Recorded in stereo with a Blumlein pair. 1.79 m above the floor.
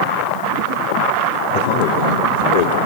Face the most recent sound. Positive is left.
turn(degrees=65)